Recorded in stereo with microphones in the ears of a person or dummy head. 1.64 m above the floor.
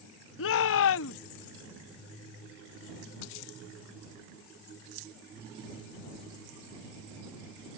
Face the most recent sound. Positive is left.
turn(degrees=75)  # may be behind; listen again after turning